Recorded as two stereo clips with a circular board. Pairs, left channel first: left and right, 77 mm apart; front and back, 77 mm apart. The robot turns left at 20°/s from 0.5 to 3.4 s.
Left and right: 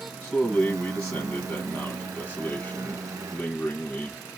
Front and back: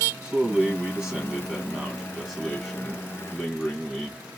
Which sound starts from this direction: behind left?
A man speaking, at 0.2 s.